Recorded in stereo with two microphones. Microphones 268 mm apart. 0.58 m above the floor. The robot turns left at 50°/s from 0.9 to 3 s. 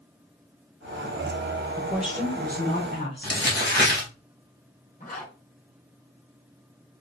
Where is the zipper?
35° left (ahead or behind), 2.5 m.